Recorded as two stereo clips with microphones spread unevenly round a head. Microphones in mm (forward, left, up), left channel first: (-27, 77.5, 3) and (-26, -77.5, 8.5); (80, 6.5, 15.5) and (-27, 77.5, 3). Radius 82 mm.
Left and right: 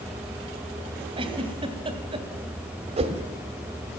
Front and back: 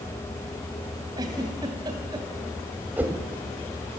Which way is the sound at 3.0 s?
130° right.